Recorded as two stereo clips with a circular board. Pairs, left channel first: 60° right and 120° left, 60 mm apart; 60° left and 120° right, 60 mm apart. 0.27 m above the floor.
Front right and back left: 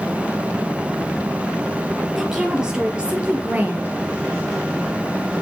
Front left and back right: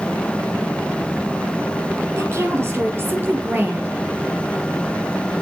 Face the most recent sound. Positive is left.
turn(degrees=175)